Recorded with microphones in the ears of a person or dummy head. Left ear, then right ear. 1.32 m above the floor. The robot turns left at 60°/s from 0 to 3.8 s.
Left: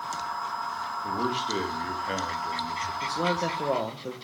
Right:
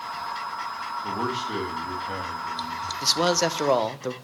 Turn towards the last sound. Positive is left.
turn(degrees=-125)